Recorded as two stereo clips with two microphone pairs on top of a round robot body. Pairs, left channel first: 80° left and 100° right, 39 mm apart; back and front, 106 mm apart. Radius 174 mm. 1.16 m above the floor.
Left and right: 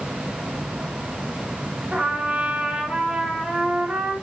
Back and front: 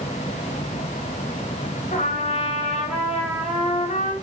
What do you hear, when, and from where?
1.9 s a trumpet: 170° right, 1.9 m